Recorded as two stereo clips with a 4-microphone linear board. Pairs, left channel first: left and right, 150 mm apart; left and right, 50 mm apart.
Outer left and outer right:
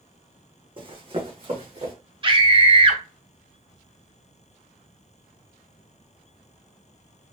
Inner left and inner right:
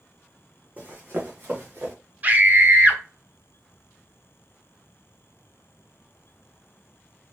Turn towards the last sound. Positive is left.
turn(degrees=-35)  # may be behind; listen again after turning